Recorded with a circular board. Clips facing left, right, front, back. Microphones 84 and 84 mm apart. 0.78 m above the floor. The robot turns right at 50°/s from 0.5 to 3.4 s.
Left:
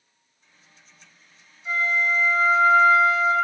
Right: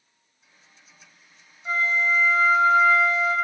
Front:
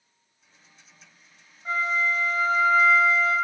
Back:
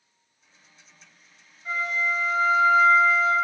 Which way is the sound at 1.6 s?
60° right.